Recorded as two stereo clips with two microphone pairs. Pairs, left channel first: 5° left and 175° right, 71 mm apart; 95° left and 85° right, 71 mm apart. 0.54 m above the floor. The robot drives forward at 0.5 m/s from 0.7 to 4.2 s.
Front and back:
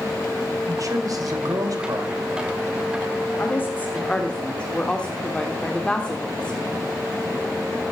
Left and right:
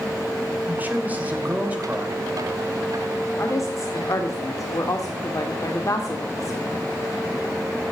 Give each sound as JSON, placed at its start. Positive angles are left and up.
{"t": 0.7, "sound": "a man speaking", "azimuth_deg": -150, "distance_m": 2.5}
{"t": 3.4, "sound": "a woman speaking", "azimuth_deg": 55, "distance_m": 1.3}